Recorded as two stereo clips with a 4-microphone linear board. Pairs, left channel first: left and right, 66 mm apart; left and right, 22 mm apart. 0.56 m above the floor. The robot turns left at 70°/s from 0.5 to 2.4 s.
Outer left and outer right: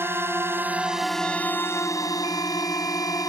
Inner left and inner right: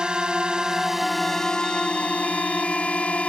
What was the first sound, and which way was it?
A drone, 40° right (ahead or behind).